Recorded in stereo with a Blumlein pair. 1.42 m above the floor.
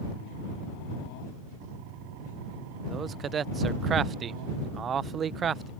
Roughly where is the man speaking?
Ahead.